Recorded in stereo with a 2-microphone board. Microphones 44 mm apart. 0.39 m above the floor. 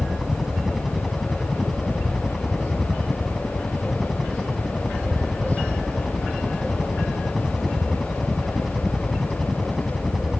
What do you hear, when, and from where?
0.0 s a helicopter: 5° right (ahead or behind)